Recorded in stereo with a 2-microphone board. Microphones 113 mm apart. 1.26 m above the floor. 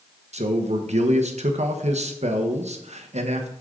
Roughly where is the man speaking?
Right.